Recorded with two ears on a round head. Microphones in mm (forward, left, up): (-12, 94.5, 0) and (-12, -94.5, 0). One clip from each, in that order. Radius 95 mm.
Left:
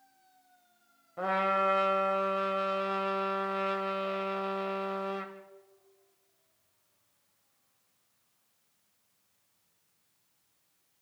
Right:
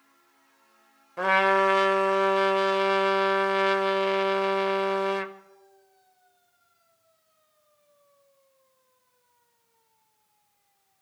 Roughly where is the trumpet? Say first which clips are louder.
Right 7 dB; right.